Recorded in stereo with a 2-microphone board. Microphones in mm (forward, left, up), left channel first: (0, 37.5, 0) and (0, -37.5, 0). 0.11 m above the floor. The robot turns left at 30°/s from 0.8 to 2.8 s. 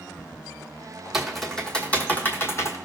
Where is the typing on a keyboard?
5° right (ahead or behind), 1.2 m; by 2.8 s 40° left (ahead or behind), 1.2 m.